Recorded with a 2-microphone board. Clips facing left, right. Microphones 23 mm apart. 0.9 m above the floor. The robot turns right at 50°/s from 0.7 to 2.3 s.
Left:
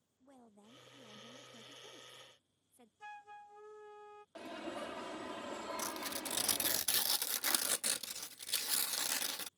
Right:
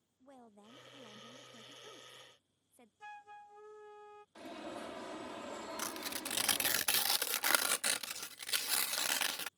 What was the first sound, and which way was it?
A woman speaking, 155° right.